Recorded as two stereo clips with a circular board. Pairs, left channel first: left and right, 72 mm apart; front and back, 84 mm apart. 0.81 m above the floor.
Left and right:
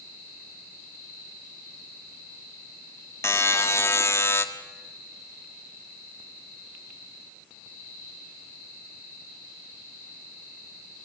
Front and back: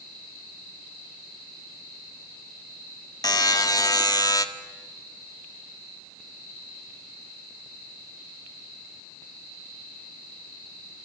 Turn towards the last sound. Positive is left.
turn(degrees=40)